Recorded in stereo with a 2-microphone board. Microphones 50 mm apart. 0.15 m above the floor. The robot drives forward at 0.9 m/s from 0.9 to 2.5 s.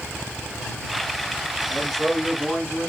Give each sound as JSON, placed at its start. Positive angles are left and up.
{"t": 1.7, "sound": "a man speaking", "side_deg": 0, "distance_m": 1.3}